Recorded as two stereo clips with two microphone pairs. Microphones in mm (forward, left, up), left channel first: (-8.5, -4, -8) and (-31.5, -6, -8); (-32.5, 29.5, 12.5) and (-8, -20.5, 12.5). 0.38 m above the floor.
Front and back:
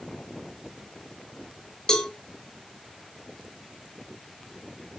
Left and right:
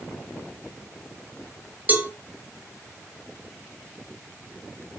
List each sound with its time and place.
1.9 s a cowbell: 30° right, 1.7 m